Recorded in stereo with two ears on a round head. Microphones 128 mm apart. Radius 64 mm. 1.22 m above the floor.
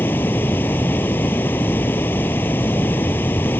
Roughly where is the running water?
Centre.